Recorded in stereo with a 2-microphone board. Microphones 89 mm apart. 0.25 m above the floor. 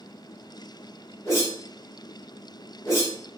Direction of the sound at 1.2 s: 30° left (ahead or behind).